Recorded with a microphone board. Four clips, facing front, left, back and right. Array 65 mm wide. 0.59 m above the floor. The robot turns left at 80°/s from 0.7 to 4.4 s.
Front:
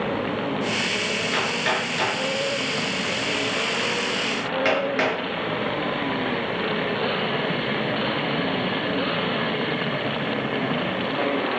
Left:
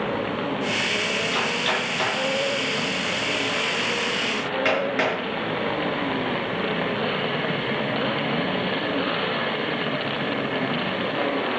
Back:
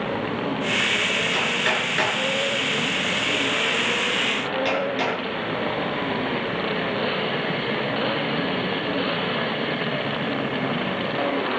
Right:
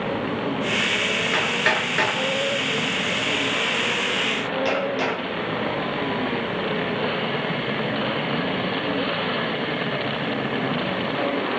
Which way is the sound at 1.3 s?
75° right.